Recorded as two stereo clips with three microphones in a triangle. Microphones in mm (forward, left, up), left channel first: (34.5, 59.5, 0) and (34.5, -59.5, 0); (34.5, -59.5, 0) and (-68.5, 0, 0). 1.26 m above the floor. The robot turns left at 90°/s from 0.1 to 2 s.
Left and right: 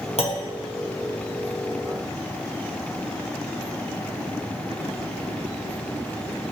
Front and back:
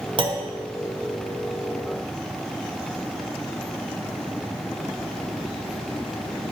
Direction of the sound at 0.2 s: 110° left.